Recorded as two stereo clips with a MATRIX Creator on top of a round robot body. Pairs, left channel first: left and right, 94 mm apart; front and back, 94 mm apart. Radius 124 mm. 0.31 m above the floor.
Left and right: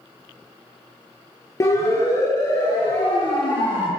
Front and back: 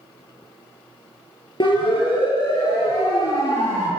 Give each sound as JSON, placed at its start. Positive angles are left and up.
{"t": 1.6, "sound": "a siren", "azimuth_deg": 35, "distance_m": 7.0}